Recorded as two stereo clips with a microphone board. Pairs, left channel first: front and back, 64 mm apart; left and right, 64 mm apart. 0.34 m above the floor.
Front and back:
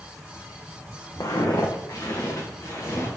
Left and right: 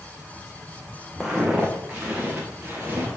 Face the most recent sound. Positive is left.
turn(degrees=-30)